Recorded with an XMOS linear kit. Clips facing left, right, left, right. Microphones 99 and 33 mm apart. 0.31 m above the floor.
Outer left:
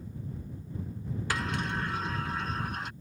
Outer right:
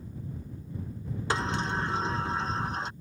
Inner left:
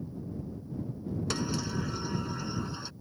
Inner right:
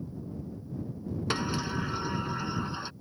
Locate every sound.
1.3 s a sliding door: 30° right (ahead or behind)